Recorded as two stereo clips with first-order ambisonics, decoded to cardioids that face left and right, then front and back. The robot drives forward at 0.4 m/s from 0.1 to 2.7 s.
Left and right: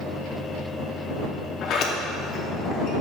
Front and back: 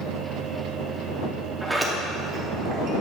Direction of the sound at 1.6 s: 90° left.